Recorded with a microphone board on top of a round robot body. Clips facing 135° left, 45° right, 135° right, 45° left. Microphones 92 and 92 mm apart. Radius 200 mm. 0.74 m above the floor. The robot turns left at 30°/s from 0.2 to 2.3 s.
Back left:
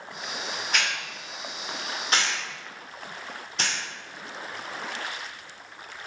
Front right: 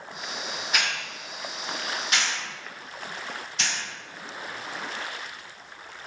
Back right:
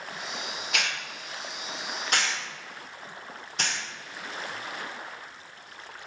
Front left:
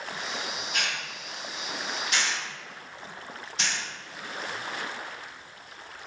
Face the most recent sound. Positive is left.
turn(degrees=-175)